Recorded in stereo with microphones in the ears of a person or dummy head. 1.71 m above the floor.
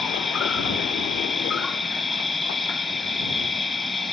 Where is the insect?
Centre (ahead or behind).